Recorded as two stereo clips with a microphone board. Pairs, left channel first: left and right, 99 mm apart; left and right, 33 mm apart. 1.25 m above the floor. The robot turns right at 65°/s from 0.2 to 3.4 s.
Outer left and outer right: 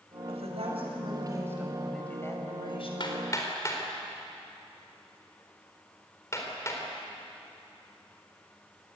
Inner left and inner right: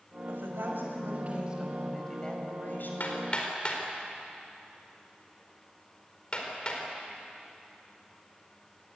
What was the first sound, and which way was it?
A woman speaking, 105° right.